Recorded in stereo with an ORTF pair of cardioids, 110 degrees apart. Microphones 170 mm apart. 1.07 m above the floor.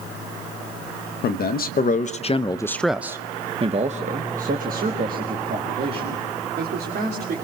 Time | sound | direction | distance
1.2 | a man speaking | 70° left | 1.0 m